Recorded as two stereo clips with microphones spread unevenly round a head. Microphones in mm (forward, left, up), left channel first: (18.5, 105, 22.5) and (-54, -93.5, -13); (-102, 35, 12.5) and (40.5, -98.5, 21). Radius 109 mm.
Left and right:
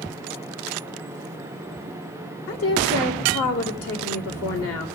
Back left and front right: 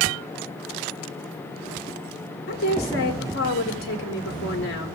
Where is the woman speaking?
90° left, 1.8 m.